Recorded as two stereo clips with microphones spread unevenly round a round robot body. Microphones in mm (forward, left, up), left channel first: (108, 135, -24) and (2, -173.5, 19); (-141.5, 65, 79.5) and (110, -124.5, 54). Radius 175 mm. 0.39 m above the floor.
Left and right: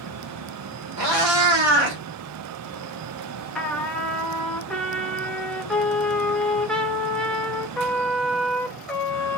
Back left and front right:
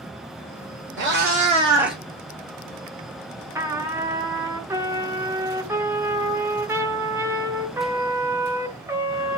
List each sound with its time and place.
1.0 s a cat meowing: 95° right, 1.4 m; by 2.0 s 130° right, 1.0 m
3.5 s a trumpet: 10° left, 0.6 m